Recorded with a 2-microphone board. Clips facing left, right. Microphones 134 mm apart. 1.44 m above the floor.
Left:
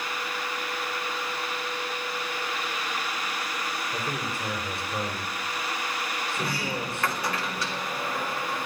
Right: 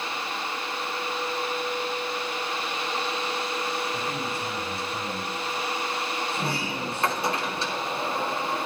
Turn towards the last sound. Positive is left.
turn(degrees=-25)  # may be behind; listen again after turning